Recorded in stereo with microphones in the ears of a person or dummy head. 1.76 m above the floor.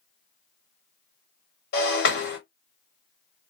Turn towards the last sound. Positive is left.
turn(degrees=55)  # may be behind; listen again after turning